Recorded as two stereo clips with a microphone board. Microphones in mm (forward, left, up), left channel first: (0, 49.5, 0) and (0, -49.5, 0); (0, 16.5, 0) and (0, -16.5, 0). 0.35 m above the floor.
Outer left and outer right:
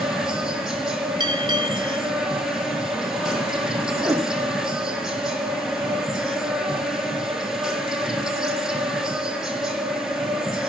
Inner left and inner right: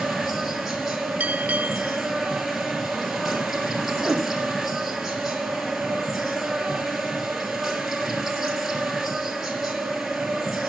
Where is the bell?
50° right (ahead or behind), 0.7 m.